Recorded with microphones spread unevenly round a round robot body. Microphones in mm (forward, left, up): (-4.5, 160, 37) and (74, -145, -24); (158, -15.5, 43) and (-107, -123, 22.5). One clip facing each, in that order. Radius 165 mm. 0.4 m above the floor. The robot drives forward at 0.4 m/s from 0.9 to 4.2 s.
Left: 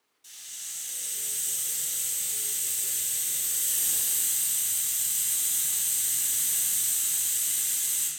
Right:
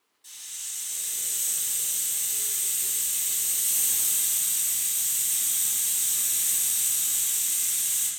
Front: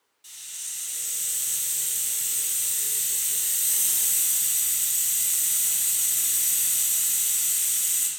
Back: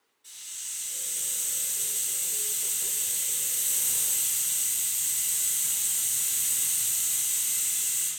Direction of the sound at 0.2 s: 5° left.